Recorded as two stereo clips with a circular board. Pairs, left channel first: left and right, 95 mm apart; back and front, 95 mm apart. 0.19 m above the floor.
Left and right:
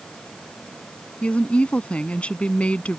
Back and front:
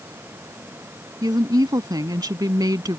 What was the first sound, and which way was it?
A woman speaking, 20° left.